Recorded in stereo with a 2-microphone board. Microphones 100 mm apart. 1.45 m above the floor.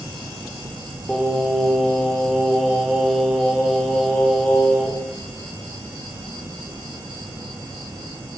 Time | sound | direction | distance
0.0 | an insect | 40° right (ahead or behind) | 1.5 m
1.1 | singing | centre (ahead or behind) | 0.6 m